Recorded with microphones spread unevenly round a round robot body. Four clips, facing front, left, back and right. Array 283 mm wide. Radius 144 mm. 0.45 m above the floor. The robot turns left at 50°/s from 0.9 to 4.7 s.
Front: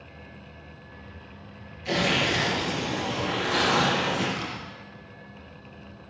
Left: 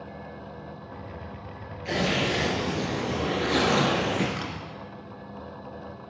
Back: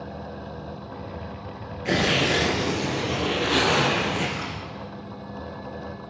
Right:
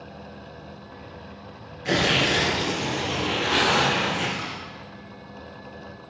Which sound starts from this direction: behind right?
Tearing paper, at 1.9 s.